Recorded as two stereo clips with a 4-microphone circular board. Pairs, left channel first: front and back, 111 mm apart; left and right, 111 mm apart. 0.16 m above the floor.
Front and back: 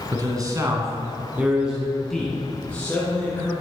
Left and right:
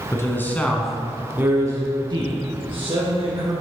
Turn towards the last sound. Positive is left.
turn(degrees=-70)